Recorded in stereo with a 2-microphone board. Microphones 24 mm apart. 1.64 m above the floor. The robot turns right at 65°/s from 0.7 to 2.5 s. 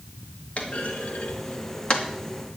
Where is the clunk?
50° left (ahead or behind), 2 m; by 2.1 s 40° left (ahead or behind), 2 m.